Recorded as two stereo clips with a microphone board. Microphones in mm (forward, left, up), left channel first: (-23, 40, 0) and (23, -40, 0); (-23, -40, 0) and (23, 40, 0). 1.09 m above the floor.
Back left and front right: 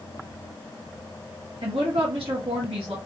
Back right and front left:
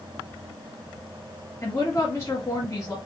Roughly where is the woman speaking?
Ahead right.